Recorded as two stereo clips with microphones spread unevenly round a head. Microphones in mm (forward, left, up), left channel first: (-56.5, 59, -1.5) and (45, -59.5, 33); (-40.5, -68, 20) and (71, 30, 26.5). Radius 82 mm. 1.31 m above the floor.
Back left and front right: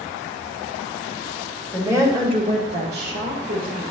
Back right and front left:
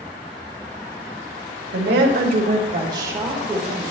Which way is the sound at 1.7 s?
35° left.